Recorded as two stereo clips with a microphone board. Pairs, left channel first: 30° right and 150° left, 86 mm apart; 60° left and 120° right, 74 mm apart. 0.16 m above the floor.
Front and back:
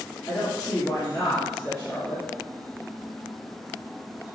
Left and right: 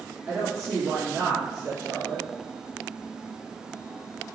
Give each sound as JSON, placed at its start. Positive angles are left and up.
{"t": 0.3, "sound": "a woman speaking", "azimuth_deg": -80, "distance_m": 1.8}